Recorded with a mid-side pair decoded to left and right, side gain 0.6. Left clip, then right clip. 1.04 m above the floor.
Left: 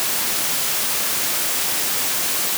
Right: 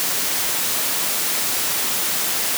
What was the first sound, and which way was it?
Only background noise.